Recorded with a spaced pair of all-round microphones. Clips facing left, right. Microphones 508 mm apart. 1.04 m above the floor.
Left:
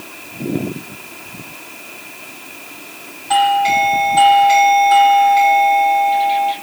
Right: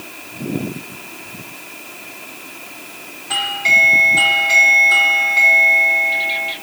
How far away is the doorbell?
About 1.2 m.